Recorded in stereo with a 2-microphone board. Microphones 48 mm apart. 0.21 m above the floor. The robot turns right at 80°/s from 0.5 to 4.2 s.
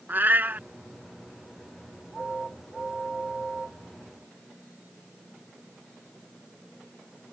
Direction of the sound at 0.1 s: 45° right (ahead or behind).